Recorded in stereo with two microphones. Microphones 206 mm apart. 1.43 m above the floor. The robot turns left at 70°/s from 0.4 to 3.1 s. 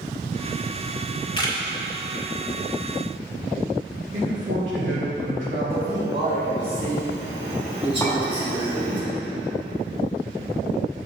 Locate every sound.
1.4 s a camera shutter: 25° left (ahead or behind), 1.8 m; by 1.6 s 10° left (ahead or behind), 1.8 m
4.1 s a man speaking: 65° right (ahead or behind), 3 m
5.7 s a man speaking: 25° right (ahead or behind), 3 m
8.0 s a clink: 5° left (ahead or behind), 3 m